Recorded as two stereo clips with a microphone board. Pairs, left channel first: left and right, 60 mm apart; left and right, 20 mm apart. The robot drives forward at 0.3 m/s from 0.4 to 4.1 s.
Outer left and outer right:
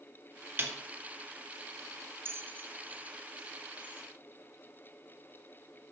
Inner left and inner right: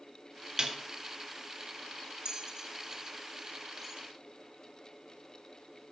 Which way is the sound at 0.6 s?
35° right (ahead or behind).